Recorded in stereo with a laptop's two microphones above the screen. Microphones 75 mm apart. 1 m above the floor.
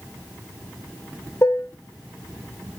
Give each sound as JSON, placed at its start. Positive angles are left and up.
{"t": 1.4, "sound": "dishes clattering", "side_deg": 35, "distance_m": 2.5}